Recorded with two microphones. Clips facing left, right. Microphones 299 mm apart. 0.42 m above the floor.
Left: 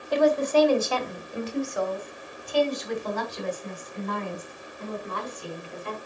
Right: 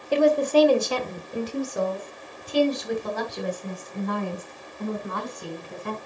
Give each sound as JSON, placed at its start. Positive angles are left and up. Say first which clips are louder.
{"t": 0.1, "sound": "a woman speaking", "louder": "right 2 dB", "side_deg": -35, "distance_m": 1.4}